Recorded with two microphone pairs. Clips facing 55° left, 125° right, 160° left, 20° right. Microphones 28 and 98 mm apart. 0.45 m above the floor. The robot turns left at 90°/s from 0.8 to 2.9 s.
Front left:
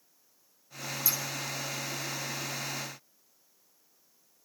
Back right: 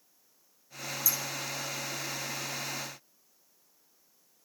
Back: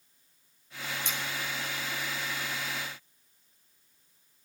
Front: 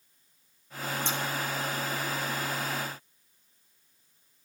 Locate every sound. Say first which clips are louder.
1.1 s scissors: even, front 6 dB; 30° left, 2.5 m; by 1.2 s 20° left, 2.5 m